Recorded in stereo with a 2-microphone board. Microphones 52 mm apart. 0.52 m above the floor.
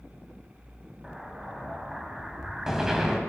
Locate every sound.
1.0 s an explosion: 10° right (ahead or behind), 2.0 m